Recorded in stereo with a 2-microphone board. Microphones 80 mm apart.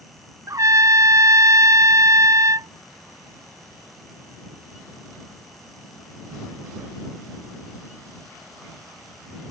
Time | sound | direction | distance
0.5 | a trumpet | 45° right (ahead or behind) | ?